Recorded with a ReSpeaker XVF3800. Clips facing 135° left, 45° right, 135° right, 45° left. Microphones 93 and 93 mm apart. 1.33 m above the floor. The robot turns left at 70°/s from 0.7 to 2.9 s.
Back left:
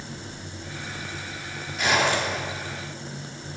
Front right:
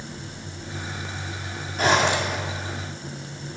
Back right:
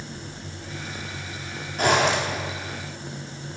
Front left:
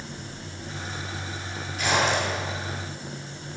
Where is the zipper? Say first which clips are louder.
Front right 2 dB, back right 3 dB; 95° right, 2.5 m; by 2.4 s 135° right, 2.5 m.